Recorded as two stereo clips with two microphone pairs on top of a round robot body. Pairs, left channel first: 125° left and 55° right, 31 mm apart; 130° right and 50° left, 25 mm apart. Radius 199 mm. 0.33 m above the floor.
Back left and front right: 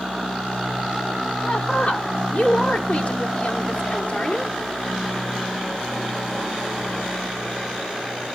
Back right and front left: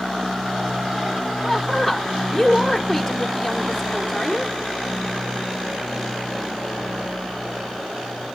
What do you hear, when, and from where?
1.4 s a woman speaking: 150° left, 2.5 m